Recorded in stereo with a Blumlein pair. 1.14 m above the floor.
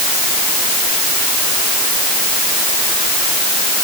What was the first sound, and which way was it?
Only background noise.